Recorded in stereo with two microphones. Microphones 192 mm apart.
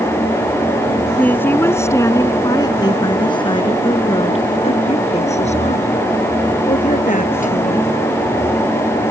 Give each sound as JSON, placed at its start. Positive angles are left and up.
{"t": 1.2, "sound": "a woman speaking", "side_deg": 10}